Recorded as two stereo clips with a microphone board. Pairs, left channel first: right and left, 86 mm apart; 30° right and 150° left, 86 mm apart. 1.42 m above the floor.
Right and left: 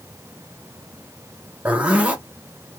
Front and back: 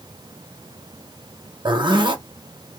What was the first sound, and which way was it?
A zipper, 165° left.